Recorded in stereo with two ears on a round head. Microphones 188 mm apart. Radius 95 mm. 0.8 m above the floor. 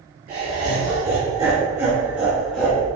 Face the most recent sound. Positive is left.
turn(degrees=5)  # may be behind; listen again after turning